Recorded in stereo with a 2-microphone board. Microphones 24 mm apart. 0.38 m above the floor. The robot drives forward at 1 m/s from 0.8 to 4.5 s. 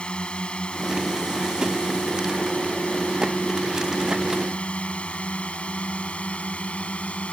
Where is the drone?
40° left (ahead or behind); by 7.3 s 55° left (ahead or behind).